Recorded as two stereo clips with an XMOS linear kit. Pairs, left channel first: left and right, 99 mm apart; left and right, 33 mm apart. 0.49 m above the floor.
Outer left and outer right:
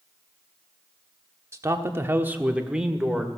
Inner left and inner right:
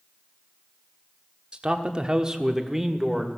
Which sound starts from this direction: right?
A man speaking, at 1.5 s.